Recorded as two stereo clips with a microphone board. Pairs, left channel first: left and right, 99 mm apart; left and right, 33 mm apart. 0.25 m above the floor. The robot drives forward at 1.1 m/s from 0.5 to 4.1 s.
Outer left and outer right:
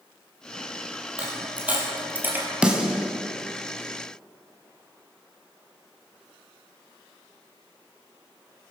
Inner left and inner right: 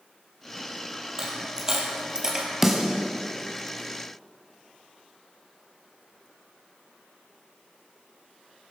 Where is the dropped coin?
15° right (ahead or behind), 4 m; by 2.5 s 20° right (ahead or behind), 2.5 m.